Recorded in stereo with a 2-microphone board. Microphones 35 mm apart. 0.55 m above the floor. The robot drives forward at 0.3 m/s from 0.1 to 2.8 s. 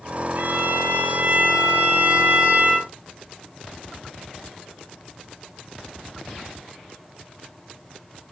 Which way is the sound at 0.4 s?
60° right (ahead or behind).